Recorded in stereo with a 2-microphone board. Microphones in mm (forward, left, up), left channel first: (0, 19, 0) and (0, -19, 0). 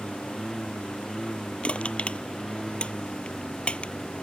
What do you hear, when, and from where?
0.0 s a lawn mower: 5° left (ahead or behind)
1.6 s crushing: 30° left (ahead or behind)